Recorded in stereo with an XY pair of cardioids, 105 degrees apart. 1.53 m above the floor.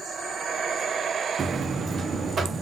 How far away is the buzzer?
About 0.6 m.